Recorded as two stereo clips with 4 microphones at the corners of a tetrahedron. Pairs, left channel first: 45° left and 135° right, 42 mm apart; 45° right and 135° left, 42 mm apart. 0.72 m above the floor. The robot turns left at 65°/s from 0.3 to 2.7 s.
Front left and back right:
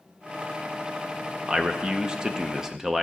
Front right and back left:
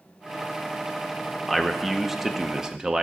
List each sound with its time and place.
1.5 s a man speaking: 115° right, 0.6 m; by 3.0 s 165° left, 0.6 m